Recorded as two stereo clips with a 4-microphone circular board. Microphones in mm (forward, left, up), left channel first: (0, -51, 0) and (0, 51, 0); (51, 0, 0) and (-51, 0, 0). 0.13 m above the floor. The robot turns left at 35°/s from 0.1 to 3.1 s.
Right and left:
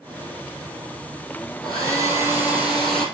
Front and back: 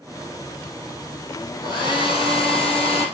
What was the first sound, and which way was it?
A hair dryer, 50° left.